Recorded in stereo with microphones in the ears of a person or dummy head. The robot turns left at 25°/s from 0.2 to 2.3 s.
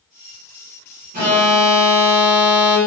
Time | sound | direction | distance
1.1 | an alarm | 45° right (ahead or behind) | 2 m